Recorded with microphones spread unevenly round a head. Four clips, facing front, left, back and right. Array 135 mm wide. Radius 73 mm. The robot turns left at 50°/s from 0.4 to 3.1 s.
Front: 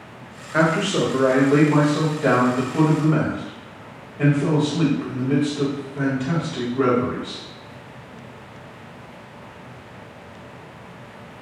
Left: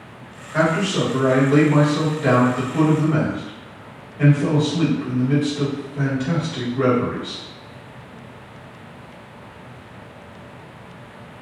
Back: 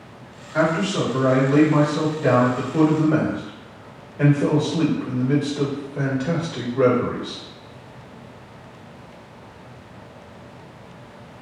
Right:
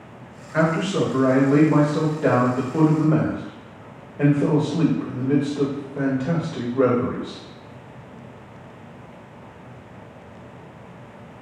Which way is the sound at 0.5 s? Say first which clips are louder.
Left 1 dB, front 1 dB; straight ahead.